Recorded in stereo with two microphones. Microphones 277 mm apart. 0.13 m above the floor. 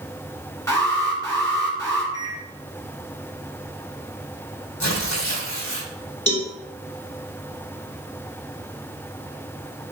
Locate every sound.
0.7 s an alarm: 10° left (ahead or behind), 2.5 m
2.1 s a microwave: 65° left (ahead or behind), 3 m
4.8 s tearing paper: 80° left, 2.5 m
6.3 s a cowbell: 60° left (ahead or behind), 1.9 m